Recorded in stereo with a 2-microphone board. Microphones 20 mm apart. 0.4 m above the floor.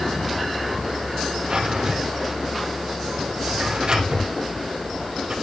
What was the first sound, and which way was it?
A drawer, 40° right (ahead or behind).